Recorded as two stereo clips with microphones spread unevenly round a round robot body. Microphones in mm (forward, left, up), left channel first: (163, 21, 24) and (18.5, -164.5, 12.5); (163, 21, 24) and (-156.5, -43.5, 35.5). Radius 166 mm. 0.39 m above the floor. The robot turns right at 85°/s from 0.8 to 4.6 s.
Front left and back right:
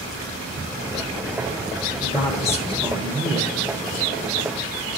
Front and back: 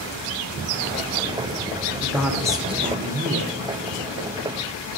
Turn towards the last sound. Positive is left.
turn(degrees=-60)